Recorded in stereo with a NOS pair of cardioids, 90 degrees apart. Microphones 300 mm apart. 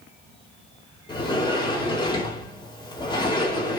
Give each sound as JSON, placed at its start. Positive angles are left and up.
{"t": 1.1, "sound": "a sliding door", "azimuth_deg": 15, "distance_m": 5.0}